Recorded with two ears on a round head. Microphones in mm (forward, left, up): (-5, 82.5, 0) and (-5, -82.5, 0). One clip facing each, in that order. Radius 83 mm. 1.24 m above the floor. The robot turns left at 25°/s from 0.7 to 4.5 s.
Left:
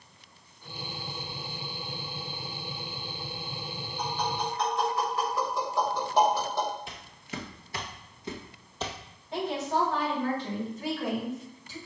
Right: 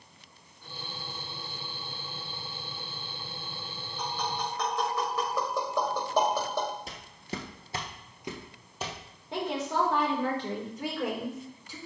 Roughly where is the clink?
I don't hear a clink.